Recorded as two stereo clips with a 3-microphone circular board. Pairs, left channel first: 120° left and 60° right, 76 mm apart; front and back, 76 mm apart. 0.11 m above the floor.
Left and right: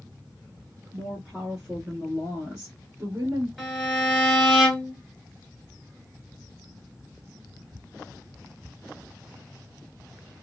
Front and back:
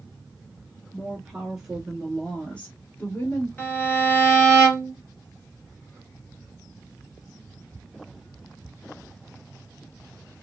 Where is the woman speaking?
140° right, 1.3 m; by 3.5 s 25° right, 1.4 m.